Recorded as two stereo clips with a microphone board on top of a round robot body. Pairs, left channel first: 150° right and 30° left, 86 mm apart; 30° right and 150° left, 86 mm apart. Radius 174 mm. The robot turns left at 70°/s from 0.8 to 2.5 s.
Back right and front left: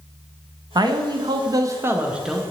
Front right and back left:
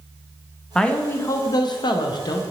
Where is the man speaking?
50° left, 0.5 m; by 2.4 s 65° right, 0.5 m.